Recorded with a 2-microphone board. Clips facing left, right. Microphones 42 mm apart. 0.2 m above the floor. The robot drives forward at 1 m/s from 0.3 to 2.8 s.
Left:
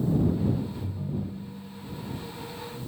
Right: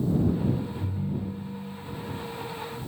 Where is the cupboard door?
I don't hear a cupboard door.